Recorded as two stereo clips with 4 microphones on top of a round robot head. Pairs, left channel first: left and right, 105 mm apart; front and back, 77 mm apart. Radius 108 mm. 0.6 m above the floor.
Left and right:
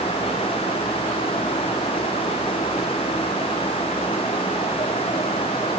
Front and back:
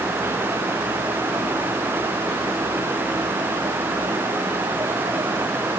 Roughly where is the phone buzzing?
I don't hear a phone buzzing.